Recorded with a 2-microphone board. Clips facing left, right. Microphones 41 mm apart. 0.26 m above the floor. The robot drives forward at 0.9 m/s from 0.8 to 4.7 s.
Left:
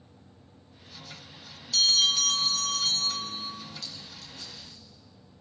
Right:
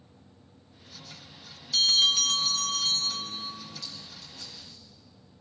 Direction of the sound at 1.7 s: 10° right (ahead or behind).